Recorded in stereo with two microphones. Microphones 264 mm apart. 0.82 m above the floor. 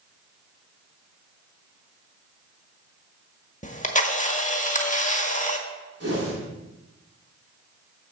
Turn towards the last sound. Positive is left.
turn(degrees=-60)  # may be behind; listen again after turning